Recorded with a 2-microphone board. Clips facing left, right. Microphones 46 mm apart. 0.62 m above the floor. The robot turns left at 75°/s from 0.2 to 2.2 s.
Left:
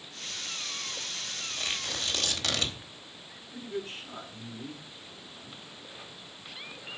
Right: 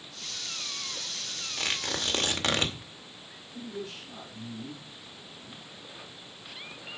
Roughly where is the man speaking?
Left.